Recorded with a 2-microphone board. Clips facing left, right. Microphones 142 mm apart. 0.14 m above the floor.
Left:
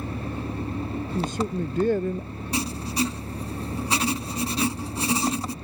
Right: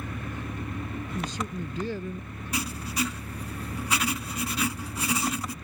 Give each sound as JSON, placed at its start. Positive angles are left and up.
{"t": 0.0, "sound": "an engine running", "side_deg": 30}
{"t": 1.1, "sound": "a man speaking", "side_deg": 55}
{"t": 2.5, "sound": "writing", "side_deg": 30}